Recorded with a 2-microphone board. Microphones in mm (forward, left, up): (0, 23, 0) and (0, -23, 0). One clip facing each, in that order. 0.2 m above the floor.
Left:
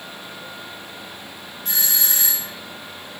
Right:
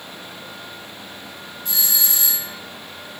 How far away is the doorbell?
About 3 m.